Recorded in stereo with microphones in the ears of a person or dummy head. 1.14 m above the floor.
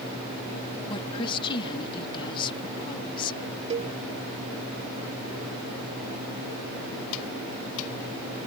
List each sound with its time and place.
0.9 s a woman speaking: 25° left (ahead or behind)
3.7 s a cowbell: 30° right (ahead or behind)